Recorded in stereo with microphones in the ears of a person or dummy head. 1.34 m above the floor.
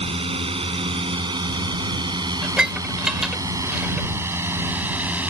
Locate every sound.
0.0 s a drone: 30° right (ahead or behind); by 5.3 s 5° right (ahead or behind)
2.4 s dishes clattering: 5° right (ahead or behind)